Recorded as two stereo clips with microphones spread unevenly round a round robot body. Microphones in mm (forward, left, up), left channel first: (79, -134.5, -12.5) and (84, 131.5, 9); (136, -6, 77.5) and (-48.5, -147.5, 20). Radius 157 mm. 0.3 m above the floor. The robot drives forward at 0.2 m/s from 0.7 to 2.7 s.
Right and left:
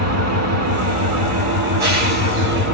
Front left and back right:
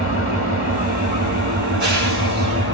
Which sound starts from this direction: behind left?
An engine running, at 0.0 s.